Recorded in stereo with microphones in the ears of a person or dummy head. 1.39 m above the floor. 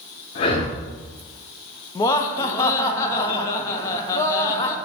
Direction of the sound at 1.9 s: 35° left (ahead or behind).